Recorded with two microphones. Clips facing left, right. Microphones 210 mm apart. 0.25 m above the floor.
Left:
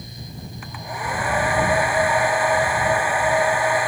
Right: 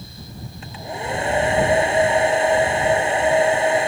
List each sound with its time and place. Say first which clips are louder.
0.6 s a hair dryer: right 3 dB; 25° right (ahead or behind)